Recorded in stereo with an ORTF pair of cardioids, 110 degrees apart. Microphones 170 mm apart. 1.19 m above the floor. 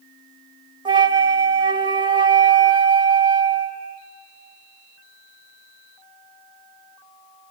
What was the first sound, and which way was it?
A flute, 25° right.